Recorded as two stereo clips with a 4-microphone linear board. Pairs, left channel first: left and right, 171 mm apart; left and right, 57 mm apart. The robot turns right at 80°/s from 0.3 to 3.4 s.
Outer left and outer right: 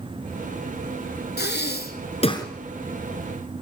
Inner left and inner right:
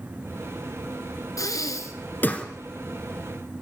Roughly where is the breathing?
Left.